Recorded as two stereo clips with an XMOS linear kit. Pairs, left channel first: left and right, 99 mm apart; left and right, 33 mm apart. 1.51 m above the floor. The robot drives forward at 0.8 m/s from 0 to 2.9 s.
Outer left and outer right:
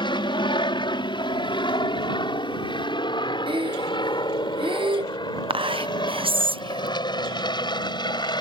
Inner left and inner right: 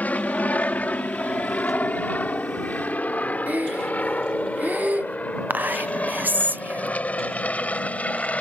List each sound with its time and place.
0.0 s an aircraft: 55° left (ahead or behind); by 8.4 s 50° left (ahead or behind)
3.5 s breathing: 65° right (ahead or behind)
5.5 s whispering: 70° right (ahead or behind)